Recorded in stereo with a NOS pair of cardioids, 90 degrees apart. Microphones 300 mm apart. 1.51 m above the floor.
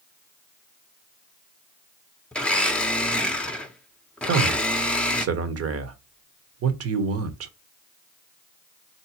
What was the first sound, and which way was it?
A blender, 5° left.